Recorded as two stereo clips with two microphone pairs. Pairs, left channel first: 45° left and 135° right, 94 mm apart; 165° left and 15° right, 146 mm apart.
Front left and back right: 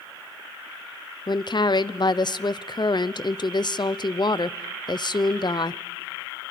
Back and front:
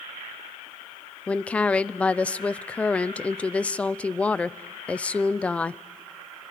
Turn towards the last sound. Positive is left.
turn(degrees=85)